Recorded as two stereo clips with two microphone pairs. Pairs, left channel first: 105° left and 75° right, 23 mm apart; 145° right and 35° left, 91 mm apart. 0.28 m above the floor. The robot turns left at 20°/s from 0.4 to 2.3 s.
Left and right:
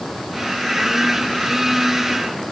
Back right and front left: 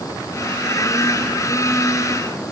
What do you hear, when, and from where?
Only background noise.